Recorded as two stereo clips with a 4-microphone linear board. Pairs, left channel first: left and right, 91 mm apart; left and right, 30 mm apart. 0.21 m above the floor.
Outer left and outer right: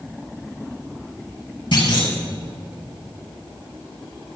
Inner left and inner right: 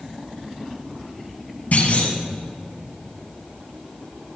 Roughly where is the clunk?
Left.